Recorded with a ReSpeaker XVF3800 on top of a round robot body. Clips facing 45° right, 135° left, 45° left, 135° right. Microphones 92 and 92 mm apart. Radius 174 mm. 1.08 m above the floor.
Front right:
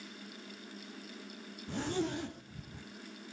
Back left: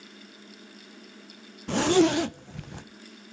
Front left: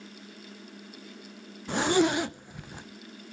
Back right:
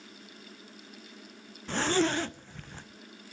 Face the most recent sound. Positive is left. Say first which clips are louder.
# back left 14 dB, front left 3 dB
turn(degrees=120)